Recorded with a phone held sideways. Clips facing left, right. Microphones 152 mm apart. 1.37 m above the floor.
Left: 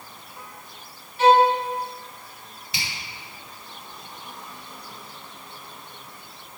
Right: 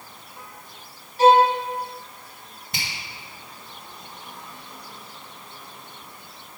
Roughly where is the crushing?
I don't hear crushing.